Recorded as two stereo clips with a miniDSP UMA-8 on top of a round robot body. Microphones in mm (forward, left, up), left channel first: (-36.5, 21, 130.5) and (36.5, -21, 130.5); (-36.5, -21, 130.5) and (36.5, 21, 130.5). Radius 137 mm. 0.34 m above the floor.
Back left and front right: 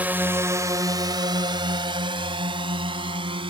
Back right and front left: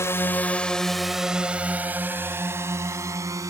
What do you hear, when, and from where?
0.0 s a drone: 95° right; by 3.5 s 20° right